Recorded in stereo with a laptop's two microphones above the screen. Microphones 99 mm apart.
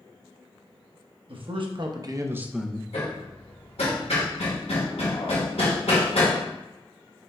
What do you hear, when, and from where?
1.3 s a man speaking: 65° right (ahead or behind), 1.1 m; by 2.8 s 15° left (ahead or behind), 0.6 m
2.9 s hammering: 80° left, 1.3 m